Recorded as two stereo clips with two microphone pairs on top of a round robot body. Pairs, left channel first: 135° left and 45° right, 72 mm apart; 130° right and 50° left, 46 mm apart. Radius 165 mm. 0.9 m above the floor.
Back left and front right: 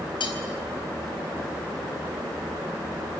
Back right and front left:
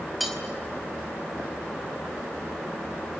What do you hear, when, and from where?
0.2 s cutlery clinking: 140° left, 4.5 m